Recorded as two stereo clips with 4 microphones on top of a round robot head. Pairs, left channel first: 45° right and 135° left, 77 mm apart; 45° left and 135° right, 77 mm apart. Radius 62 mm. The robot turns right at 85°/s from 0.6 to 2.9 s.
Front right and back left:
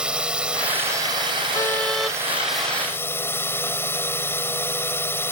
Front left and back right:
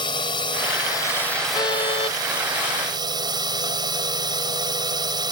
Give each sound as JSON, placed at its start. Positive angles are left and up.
{"t": 0.0, "sound": "a drone", "azimuth_deg": 55}
{"t": 1.5, "sound": "a car horn", "azimuth_deg": 5}